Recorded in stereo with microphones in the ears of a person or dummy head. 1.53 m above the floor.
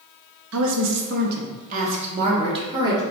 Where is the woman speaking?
70° right (ahead or behind), 0.6 m; by 3.0 s 20° right (ahead or behind), 1.7 m.